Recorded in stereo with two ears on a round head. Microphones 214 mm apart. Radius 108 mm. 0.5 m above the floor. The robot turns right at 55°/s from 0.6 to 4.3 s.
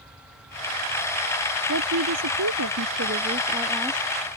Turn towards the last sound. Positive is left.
turn(degrees=20)